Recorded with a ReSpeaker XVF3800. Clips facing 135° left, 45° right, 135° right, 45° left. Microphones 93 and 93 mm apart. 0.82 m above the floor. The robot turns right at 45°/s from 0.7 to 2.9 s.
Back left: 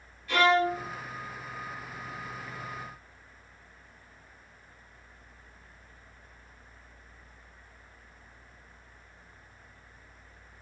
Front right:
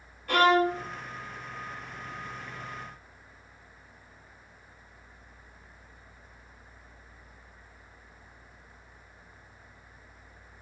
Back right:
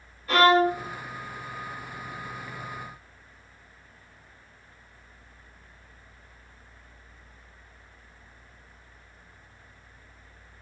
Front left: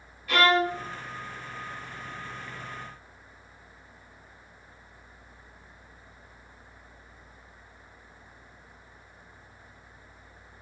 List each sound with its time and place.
0.3 s a violin: 80° right, 0.6 m; by 0.9 s 70° right, 0.6 m